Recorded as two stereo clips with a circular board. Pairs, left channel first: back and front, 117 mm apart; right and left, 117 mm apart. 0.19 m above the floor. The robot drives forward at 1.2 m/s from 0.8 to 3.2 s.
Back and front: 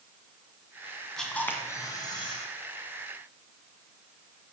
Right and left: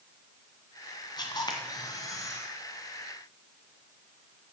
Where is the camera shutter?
95° right, 1.8 m; by 2.5 s 145° right, 2.5 m.